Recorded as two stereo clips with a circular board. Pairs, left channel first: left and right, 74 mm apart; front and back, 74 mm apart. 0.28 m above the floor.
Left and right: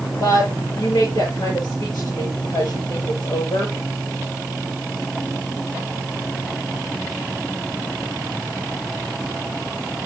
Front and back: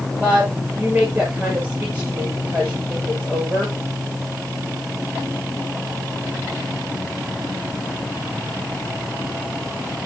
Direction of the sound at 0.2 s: 110° left.